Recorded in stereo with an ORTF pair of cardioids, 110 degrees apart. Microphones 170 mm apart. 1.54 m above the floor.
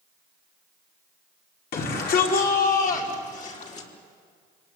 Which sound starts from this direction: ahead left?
A shout, at 1.7 s.